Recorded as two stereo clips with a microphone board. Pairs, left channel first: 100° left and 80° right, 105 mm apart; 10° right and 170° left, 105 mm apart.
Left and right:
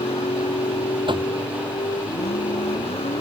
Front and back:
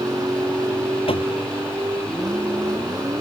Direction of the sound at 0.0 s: 115° left.